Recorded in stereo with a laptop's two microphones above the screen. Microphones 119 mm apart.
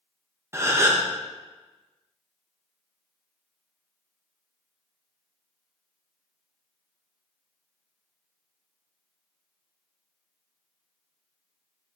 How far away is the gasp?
About 0.6 m.